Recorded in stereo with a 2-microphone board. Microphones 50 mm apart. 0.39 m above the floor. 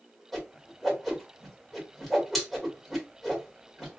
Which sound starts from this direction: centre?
A whoosh, at 0.3 s.